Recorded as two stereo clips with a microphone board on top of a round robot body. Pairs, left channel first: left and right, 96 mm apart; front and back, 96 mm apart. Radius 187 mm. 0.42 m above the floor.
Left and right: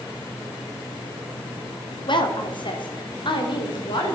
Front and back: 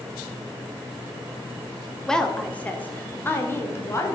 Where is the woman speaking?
85° left, 1.5 m; by 4.1 s 60° left, 2.5 m.